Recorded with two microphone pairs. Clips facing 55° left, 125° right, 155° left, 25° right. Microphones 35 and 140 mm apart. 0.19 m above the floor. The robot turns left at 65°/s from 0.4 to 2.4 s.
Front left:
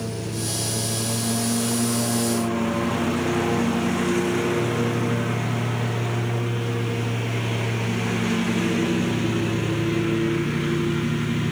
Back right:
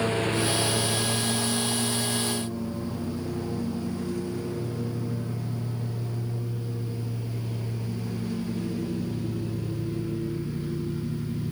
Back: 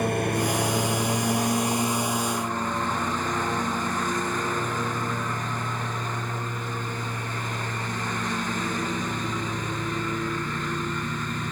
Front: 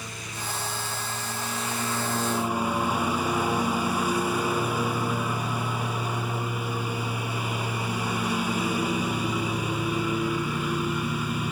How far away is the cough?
I don't hear a cough.